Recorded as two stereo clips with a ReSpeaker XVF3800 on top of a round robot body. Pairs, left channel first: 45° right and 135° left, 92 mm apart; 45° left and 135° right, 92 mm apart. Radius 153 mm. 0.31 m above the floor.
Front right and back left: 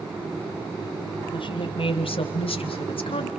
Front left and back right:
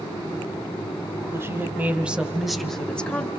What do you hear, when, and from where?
1.3 s a woman speaking: 70° right, 2.5 m; by 3.3 s 25° right, 2.5 m